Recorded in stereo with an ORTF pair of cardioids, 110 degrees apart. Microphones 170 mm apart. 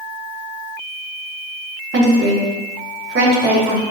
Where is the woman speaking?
70° right, 1.3 m.